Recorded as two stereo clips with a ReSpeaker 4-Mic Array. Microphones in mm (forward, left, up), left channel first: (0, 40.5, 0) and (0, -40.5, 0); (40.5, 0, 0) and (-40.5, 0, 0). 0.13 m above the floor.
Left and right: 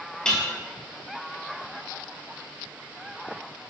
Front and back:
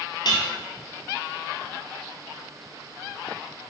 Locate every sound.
0.2 s dishes clattering: 10° left, 1.6 m